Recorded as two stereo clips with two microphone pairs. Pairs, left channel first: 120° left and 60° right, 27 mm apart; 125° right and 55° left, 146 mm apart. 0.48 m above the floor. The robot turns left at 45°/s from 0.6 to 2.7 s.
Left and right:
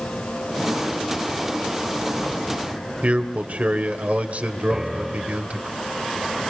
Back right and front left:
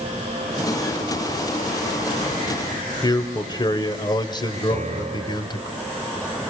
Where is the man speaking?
70° right, 2.5 m.